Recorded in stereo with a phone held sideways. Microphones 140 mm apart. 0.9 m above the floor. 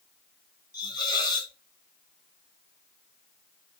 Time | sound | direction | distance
0.7 | a hiss | 30° left (ahead or behind) | 0.7 m